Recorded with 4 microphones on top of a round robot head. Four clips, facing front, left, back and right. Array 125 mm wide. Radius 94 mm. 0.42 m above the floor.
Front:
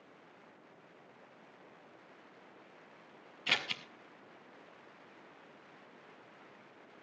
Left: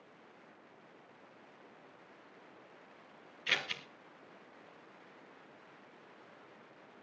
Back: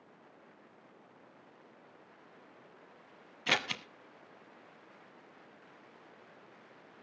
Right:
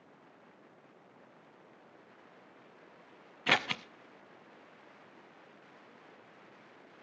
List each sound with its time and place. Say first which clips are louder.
3.5 s scissors: right 8 dB, back 5 dB; 110° right, 1.0 m